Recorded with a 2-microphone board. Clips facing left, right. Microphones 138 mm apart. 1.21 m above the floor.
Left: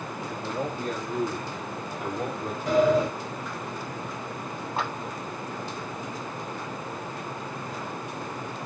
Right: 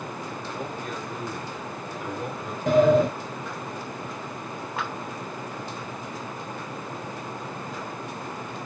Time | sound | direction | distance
0.4 | a man speaking | 30° left (ahead or behind) | 2.5 m
2.7 | a sliding door | 55° right (ahead or behind) | 2.5 m
4.8 | a clap | 35° left (ahead or behind) | 3.5 m